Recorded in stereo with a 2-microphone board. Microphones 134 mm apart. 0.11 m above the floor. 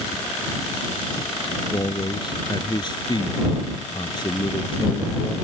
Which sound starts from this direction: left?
A man speaking, at 1.7 s.